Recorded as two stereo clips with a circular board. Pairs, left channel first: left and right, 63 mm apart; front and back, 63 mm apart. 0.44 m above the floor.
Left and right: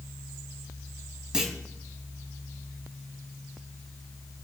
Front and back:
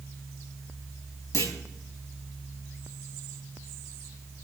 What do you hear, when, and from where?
1.3 s a clunk: 10° right, 3 m